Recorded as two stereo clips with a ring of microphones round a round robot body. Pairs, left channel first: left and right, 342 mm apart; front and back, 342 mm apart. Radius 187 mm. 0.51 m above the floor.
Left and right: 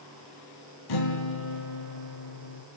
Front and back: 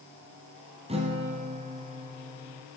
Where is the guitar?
105° left, 2.5 m.